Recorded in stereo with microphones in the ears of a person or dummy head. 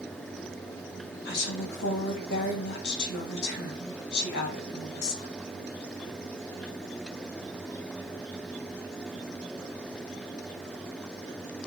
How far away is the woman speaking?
About 0.8 m.